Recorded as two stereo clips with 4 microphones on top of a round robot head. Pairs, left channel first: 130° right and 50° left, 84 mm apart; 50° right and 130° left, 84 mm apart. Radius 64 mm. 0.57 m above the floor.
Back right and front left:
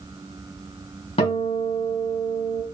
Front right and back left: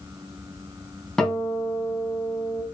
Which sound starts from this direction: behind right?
A guitar, at 1.2 s.